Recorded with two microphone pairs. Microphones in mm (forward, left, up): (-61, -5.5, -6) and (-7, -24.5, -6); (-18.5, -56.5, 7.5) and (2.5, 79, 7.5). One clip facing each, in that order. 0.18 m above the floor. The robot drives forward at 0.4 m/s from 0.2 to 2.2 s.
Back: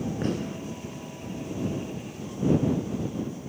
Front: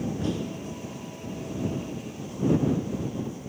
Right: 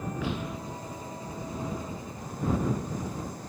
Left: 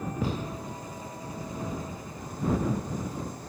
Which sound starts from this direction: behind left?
A gunshot, at 0.2 s.